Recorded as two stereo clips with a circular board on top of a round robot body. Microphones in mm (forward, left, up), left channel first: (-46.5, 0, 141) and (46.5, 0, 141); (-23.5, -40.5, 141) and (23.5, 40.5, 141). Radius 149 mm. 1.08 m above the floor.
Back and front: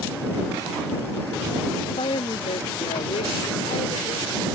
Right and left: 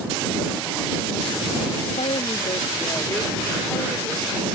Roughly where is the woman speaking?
Behind right.